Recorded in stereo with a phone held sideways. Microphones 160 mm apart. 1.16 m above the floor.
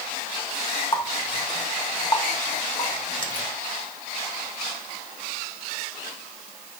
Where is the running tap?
30° left (ahead or behind), 1.1 m.